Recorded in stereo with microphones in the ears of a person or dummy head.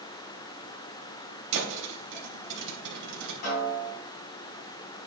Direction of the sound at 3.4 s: 50° left (ahead or behind).